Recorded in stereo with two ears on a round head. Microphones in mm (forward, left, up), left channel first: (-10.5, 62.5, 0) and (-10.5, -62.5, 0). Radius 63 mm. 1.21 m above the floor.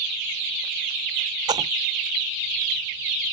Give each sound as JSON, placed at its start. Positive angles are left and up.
{"t": 1.5, "sound": "a splash", "side_deg": -30}